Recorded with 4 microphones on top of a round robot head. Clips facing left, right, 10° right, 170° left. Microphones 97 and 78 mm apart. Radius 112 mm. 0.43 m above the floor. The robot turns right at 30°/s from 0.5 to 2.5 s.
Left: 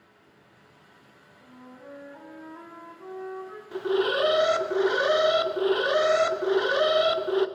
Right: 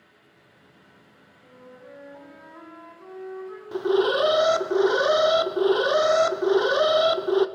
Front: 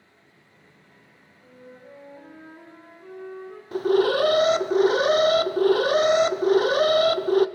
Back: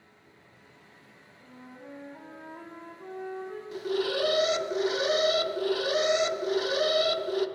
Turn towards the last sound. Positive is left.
turn(degrees=-30)